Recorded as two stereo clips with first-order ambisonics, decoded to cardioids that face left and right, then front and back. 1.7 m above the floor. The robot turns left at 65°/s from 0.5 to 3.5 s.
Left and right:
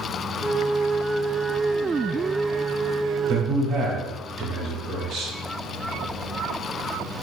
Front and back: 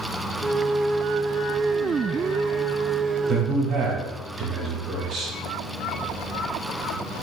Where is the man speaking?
120° right, 1.2 m; by 5.3 s 130° right, 1.2 m.